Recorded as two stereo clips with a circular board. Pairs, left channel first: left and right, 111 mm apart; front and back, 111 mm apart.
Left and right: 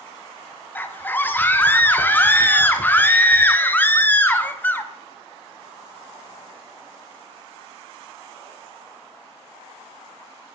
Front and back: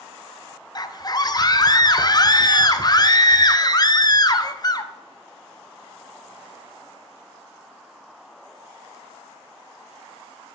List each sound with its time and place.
0.8 s a scream: 25° left, 0.5 m